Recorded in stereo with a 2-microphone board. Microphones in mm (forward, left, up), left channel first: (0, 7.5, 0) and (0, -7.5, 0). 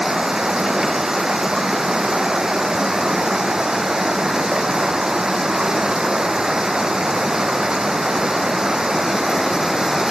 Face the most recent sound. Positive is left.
turn(degrees=-50)  # may be behind; listen again after turning